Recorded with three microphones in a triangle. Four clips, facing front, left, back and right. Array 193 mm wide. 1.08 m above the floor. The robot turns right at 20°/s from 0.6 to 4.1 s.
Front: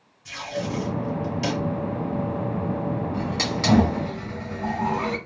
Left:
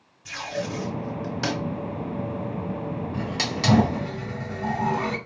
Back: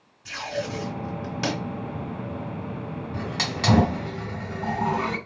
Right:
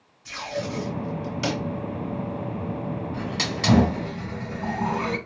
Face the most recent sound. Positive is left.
turn(degrees=180)